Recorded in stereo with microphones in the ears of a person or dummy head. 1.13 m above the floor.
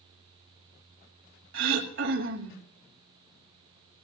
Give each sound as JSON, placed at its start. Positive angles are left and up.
{"t": 1.5, "sound": "throat clearing", "side_deg": -65, "distance_m": 1.8}